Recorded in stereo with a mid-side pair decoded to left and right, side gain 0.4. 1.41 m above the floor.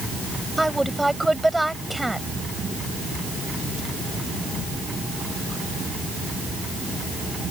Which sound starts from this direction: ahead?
A woman speaking, at 0.6 s.